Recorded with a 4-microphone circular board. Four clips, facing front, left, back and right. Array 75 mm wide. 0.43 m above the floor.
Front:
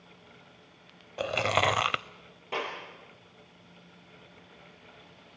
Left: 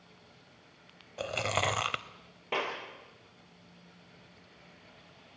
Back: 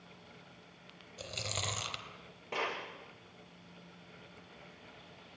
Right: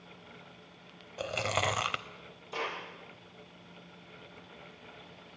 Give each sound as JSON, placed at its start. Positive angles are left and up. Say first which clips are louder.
{"t": 1.2, "sound": "chewing", "louder": "even, front 16 dB", "azimuth_deg": 0, "distance_m": 0.5}
{"t": 2.5, "sound": "a clap", "louder": "left 3 dB, front 3 dB", "azimuth_deg": 80, "distance_m": 9.0}